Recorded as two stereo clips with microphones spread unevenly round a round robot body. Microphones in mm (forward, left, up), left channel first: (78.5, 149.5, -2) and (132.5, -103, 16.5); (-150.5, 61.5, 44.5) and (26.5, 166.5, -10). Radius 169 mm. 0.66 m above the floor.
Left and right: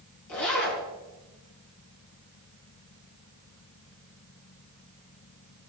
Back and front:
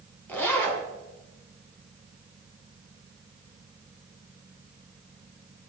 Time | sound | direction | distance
0.3 | a zipper | 130° left | 3.5 m